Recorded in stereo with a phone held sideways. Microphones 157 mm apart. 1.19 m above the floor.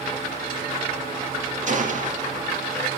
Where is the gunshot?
55° right (ahead or behind), 2 m.